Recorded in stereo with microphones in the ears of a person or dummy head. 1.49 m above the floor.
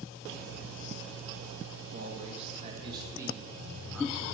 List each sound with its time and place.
1.9 s a man speaking: 45° right (ahead or behind), 2 m; by 4.3 s 5° left (ahead or behind), 3 m